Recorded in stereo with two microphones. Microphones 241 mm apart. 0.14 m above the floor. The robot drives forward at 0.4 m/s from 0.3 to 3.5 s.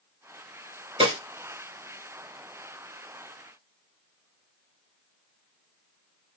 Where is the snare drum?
25° right (ahead or behind), 1.9 m.